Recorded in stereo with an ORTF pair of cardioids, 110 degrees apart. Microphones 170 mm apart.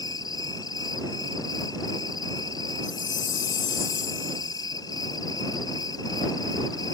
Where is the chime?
50° left.